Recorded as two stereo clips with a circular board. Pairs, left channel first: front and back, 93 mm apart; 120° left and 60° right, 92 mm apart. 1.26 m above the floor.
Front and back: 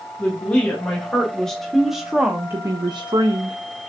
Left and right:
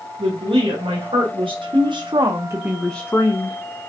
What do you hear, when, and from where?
0.2 s a woman speaking: 75° right, 2 m; by 3.6 s 150° left, 0.7 m